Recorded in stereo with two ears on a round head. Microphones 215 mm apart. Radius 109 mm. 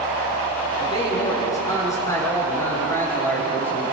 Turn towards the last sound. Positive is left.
turn(degrees=5)  # may be behind; listen again after turning